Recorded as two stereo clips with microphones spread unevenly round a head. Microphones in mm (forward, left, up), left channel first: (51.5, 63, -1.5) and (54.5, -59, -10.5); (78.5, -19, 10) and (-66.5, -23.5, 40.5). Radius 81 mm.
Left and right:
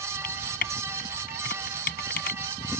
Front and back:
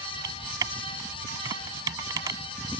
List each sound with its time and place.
0.2 s typing on a keyboard: 110° left